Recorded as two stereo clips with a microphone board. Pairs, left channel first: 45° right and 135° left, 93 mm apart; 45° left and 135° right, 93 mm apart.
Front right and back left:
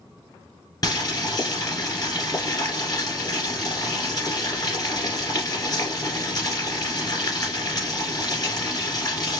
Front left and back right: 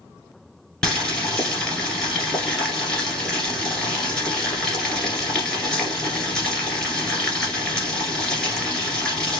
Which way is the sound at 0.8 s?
30° right.